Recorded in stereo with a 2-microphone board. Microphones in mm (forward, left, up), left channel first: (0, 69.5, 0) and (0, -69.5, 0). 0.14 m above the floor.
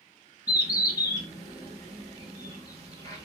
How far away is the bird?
About 1.0 m.